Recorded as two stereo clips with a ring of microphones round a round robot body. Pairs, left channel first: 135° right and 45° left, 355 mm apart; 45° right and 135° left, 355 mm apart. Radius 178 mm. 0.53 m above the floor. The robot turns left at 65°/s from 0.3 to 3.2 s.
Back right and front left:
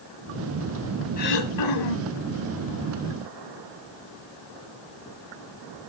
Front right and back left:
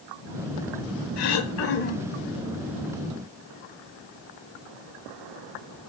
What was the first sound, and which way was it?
Throat clearing, 65° right.